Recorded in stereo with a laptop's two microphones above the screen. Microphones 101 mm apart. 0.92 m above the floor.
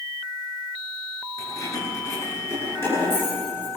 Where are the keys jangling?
35° left (ahead or behind), 10 m; by 3.7 s 20° left (ahead or behind), 11 m.